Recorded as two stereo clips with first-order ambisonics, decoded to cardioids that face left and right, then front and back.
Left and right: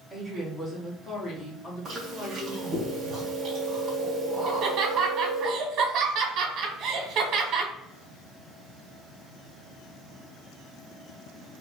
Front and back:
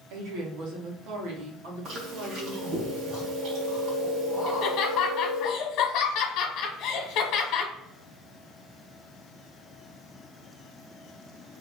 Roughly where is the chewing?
Behind right.